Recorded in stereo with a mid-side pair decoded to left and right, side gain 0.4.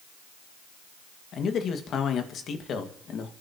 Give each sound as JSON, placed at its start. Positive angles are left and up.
{"t": 1.3, "sound": "a man speaking", "azimuth_deg": 70, "distance_m": 2.0}